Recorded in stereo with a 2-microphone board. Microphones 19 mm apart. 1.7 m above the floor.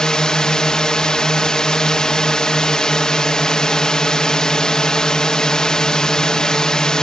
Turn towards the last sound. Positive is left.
turn(degrees=40)  # may be behind; listen again after turning